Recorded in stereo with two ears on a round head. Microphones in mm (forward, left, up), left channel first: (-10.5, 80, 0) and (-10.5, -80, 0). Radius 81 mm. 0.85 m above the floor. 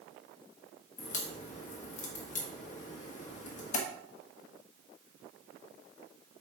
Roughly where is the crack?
Left.